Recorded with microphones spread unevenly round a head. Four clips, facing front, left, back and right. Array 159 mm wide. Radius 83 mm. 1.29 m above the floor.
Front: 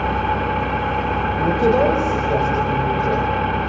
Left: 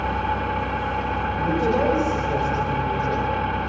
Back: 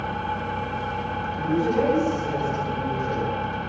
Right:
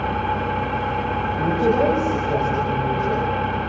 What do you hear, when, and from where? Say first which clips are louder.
0.0 s an engine running: right 1 dB, front 8 dB; 15° right, 0.8 m
1.4 s a woman speaking: right 3 dB, front 5 dB; 10° right, 6 m